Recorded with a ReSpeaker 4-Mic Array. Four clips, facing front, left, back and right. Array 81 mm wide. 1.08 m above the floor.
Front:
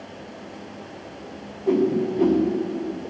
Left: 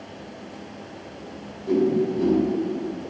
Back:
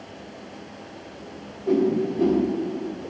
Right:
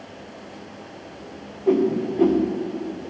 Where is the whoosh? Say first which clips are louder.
Right 1 dB, front 1 dB; 80° right, 1.5 m.